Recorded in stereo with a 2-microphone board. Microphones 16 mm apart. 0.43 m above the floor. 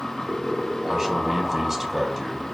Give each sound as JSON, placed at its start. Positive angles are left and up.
{"t": 0.9, "sound": "a man speaking", "side_deg": -35, "distance_m": 3.0}